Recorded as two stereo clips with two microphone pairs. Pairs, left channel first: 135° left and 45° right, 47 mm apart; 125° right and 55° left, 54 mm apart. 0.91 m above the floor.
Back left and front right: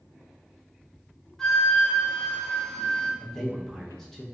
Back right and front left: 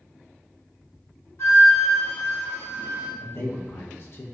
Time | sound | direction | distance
1.4 | a flute | 145° right | 0.9 m
3.2 | a man speaking | 145° right | 0.6 m